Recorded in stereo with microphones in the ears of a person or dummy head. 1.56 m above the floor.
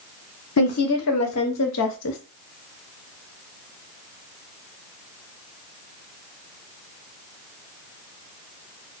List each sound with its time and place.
0.6 s a woman speaking: 80° left, 1.6 m; by 2.2 s 65° left (ahead or behind), 0.7 m